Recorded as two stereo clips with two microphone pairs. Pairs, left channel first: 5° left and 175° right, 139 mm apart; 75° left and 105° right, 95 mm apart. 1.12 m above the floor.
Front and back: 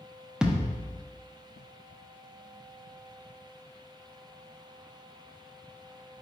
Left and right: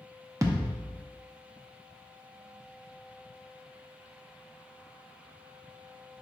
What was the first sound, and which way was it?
A thud, 90° right.